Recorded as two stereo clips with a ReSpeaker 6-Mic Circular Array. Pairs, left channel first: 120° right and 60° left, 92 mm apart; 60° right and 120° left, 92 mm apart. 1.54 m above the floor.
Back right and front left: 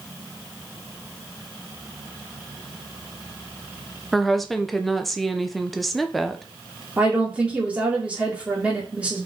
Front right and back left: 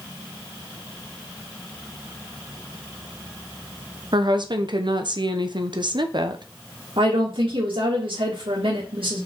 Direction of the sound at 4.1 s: 150° left.